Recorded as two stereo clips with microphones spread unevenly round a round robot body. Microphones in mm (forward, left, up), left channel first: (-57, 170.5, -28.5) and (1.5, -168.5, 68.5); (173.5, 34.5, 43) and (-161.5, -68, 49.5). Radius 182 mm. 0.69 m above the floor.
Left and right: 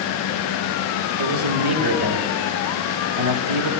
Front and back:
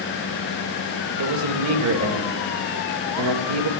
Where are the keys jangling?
I don't hear keys jangling.